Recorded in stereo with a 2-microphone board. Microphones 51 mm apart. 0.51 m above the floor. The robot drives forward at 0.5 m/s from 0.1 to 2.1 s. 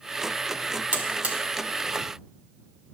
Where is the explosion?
I don't hear an explosion.